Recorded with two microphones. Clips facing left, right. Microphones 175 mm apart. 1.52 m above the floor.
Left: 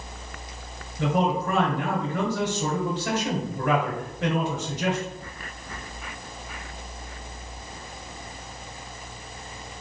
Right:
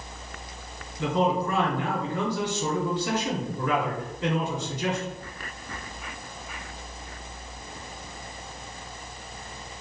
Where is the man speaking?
85° left, 1.6 m.